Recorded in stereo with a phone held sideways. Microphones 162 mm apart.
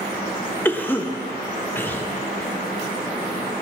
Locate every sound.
0.7 s a cough: 10° left (ahead or behind), 0.7 m